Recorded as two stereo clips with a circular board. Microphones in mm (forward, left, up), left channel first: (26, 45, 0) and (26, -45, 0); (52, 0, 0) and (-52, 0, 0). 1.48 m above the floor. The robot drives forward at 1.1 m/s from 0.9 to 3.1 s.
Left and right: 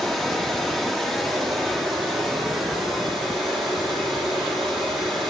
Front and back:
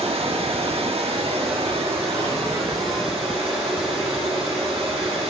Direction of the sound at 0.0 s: 175° left.